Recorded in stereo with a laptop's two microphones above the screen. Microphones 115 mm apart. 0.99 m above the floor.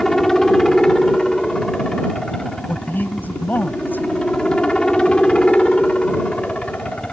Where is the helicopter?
5° left (ahead or behind); by 7.1 s 10° left (ahead or behind).